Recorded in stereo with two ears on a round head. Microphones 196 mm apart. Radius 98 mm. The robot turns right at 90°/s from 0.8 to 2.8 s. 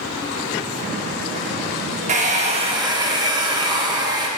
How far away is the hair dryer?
About 0.9 m.